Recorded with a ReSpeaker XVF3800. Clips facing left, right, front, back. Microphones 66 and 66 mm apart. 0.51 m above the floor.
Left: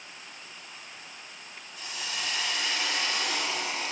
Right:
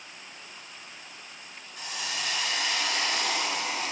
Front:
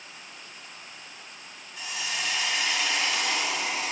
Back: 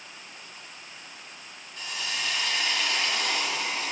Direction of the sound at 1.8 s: 75° right.